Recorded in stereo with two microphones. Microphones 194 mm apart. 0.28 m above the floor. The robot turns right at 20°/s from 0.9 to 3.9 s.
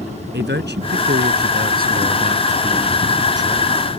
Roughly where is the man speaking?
Right.